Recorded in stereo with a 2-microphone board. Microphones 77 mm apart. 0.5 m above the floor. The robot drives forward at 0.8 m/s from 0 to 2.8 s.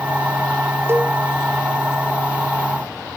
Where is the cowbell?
35° right (ahead or behind), 0.8 m; by 1.1 s 30° right (ahead or behind), 0.8 m.